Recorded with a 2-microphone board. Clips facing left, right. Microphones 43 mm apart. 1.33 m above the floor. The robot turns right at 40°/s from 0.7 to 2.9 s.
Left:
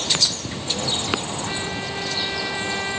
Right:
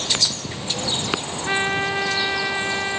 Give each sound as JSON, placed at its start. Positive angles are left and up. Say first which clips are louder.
{"t": 1.4, "sound": "a trumpet", "louder": "right 6 dB", "azimuth_deg": -65}